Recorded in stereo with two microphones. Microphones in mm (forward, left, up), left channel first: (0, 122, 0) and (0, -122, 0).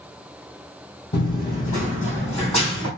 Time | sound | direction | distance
1.1 | running footsteps | 45° left (ahead or behind) | 2.5 m